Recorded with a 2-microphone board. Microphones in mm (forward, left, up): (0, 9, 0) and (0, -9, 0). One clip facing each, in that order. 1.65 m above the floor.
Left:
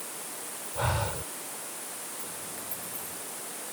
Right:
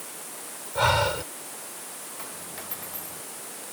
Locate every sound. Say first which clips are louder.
0.8 s breathing: right 9 dB; 70° right (ahead or behind)
2.2 s a dropped coin: right 1 dB; 55° right (ahead or behind)